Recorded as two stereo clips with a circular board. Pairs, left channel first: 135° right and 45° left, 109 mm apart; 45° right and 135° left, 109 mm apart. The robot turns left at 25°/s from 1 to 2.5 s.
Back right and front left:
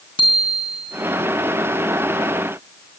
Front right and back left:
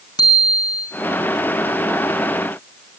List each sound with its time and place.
0.2 s a bicycle bell: 95° right, 3.5 m